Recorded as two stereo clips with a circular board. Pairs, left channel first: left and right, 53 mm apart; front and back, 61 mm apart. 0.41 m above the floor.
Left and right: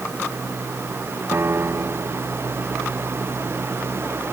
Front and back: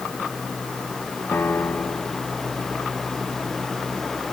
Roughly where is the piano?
Ahead right.